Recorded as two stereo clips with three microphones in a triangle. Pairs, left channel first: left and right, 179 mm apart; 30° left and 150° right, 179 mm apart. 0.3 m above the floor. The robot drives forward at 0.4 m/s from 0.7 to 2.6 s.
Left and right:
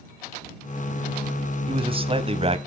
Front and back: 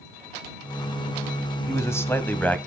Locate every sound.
1.7 s a man speaking: 40° right, 1.9 m; by 2.6 s 50° right, 1.7 m